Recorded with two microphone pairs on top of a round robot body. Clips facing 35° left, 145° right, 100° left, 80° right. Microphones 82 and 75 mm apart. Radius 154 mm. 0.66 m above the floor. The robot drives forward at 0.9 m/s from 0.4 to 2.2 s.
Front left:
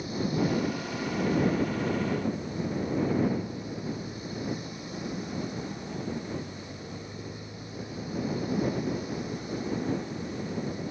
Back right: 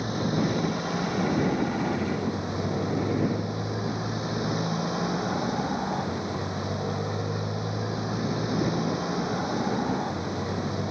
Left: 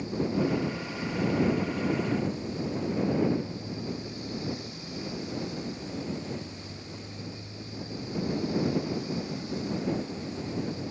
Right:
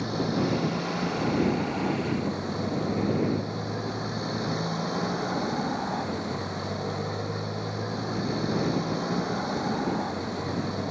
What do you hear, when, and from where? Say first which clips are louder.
0.0 s a motorcycle: back right 2 dB, right 1 dB; 110° right; by 10.9 s 120° right